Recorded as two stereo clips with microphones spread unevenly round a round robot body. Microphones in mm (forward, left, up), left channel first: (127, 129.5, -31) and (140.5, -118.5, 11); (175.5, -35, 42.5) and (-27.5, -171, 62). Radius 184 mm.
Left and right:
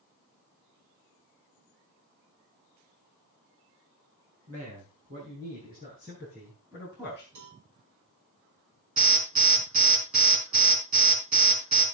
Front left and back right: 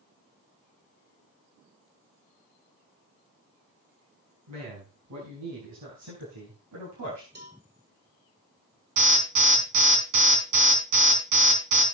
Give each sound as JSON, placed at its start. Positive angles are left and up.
{"t": 4.5, "sound": "a man speaking", "azimuth_deg": -145, "distance_m": 5.0}
{"t": 7.3, "sound": "a cowbell", "azimuth_deg": -100, "distance_m": 4.5}
{"t": 9.0, "sound": "an alarm", "azimuth_deg": -160, "distance_m": 4.5}